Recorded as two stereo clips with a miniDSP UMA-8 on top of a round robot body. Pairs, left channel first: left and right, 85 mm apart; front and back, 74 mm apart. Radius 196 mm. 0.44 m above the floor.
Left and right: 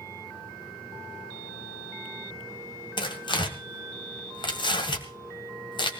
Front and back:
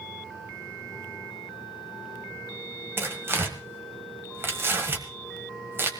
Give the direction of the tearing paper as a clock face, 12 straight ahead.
8 o'clock.